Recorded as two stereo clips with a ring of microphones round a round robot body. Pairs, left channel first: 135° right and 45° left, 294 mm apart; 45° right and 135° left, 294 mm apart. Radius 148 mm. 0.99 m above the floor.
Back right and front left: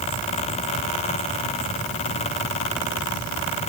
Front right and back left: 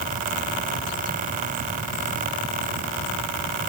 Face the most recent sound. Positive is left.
No sound to turn to.